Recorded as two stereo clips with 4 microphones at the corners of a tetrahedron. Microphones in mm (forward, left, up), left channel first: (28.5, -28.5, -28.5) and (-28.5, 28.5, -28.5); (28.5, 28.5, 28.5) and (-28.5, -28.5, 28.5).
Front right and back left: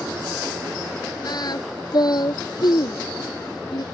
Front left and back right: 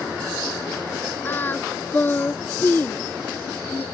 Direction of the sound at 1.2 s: 15° right.